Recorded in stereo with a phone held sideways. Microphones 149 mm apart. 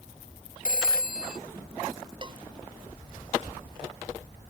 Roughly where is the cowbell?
Right.